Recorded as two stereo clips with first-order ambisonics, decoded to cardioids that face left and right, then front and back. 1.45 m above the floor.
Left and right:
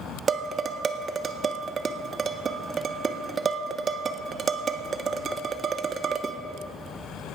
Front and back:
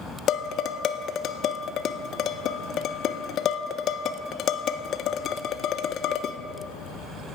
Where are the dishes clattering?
35° right, 0.6 m.